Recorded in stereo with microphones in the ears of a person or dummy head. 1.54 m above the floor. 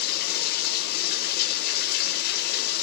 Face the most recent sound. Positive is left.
turn(degrees=55)  # may be behind; listen again after turning